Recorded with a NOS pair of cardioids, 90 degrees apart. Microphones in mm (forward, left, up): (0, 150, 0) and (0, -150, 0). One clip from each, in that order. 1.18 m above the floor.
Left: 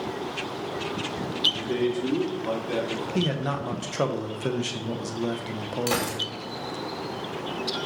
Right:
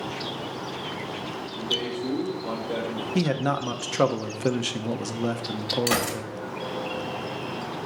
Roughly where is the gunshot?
Ahead.